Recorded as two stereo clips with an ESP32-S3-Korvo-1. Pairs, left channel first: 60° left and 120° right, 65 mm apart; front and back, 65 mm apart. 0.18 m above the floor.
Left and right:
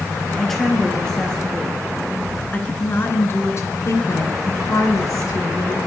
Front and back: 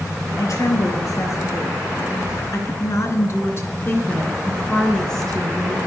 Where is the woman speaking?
25° right, 4 m; by 5.8 s 90° left, 3 m.